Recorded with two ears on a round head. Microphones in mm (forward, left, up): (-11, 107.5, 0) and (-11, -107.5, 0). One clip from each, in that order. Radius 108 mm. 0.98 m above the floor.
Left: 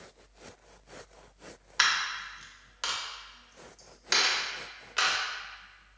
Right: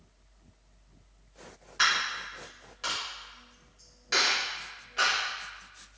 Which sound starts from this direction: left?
A dropped coin, at 1.8 s.